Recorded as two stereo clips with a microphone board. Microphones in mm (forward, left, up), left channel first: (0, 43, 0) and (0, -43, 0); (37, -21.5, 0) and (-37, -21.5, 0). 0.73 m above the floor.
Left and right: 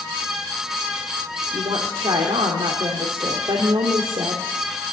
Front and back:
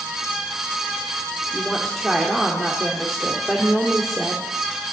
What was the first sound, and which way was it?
A woman speaking, 85° right.